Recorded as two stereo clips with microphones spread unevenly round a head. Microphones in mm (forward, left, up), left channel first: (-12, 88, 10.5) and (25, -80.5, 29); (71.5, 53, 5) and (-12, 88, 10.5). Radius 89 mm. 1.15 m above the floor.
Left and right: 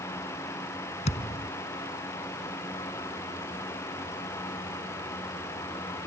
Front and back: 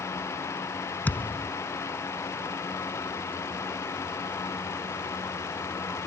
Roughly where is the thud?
Ahead left.